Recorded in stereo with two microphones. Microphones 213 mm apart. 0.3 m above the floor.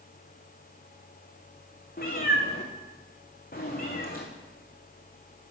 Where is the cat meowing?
40° left (ahead or behind), 2 m.